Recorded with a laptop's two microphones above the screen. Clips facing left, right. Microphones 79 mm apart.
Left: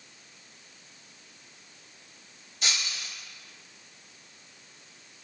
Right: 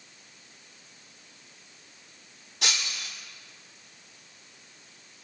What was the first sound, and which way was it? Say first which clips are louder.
Breaking glass: right 1 dB; 80° right.